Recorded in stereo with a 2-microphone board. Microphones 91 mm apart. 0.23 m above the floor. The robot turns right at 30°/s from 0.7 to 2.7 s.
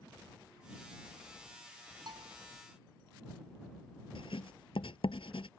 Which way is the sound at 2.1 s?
50° right (ahead or behind).